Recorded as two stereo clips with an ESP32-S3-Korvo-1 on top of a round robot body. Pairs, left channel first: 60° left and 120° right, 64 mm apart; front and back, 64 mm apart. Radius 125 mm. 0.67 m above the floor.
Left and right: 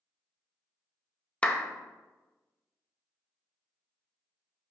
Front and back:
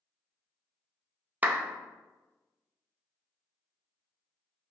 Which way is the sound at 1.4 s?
125° left.